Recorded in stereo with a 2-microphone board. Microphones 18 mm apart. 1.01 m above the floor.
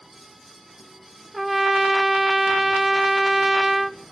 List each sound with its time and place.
1.3 s a trumpet: 5° right (ahead or behind), 0.6 m